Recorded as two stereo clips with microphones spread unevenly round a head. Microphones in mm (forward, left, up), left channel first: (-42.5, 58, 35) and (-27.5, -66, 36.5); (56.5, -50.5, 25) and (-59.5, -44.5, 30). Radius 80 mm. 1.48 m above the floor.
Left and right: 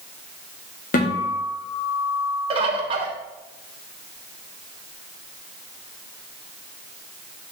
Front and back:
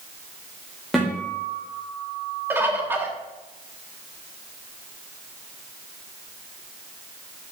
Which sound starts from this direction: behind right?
A bird, at 2.5 s.